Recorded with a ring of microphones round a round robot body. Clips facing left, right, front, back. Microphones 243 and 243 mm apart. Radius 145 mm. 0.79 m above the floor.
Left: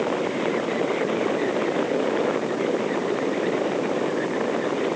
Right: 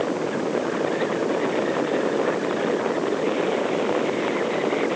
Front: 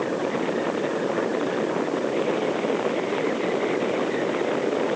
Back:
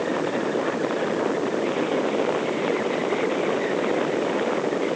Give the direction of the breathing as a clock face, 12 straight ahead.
I don't hear breathing.